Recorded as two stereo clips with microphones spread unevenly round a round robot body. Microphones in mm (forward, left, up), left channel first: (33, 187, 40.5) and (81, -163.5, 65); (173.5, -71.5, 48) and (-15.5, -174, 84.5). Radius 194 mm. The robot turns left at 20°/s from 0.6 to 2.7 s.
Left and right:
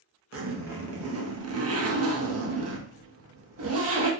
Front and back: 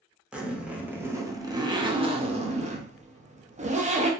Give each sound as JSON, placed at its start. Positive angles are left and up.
{"t": 0.3, "sound": "a zipper", "azimuth_deg": -55, "distance_m": 0.7}